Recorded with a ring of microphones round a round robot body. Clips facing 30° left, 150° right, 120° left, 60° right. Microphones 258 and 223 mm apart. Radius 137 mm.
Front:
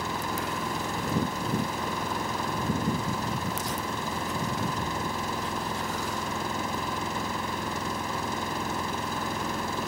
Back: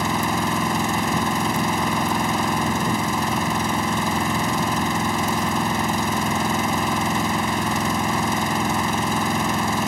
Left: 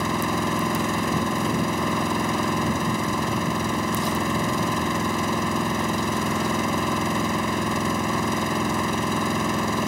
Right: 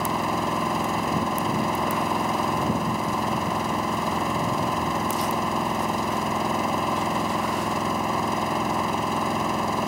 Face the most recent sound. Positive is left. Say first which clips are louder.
# back 9 dB, left 2 dB
turn(degrees=-165)